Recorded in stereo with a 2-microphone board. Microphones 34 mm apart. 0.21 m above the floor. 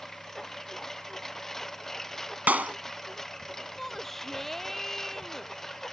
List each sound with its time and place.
0.0 s a lawn mower: 5° left (ahead or behind)
2.5 s a clap: 55° right (ahead or behind)
3.8 s a shout: 5° left (ahead or behind)